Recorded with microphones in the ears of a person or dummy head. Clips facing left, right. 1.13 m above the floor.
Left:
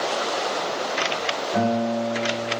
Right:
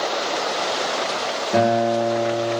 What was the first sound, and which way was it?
A guitar, 80° right.